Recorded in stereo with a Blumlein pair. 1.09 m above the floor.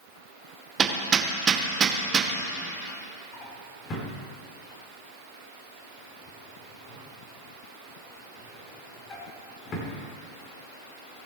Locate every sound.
0.8 s hammering: 25° right, 1.0 m
3.3 s a drawer: 25° left, 1.9 m